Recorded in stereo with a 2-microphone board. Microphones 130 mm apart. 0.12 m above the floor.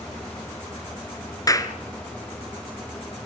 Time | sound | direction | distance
1.5 | a clap | 25° left (ahead or behind) | 1.7 m